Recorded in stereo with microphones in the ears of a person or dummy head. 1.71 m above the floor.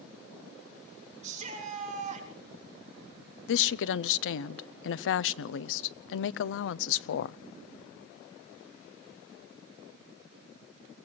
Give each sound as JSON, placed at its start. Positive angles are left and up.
{"t": 1.2, "sound": "a shout", "side_deg": -40, "distance_m": 5.5}
{"t": 3.5, "sound": "a woman speaking", "side_deg": 75, "distance_m": 0.7}